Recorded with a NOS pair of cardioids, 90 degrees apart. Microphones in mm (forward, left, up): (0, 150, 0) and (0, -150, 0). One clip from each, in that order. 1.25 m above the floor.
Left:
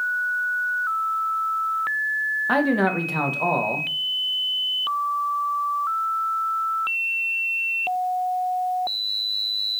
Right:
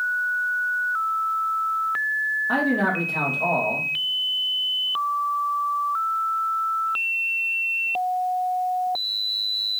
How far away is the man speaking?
About 1.1 m.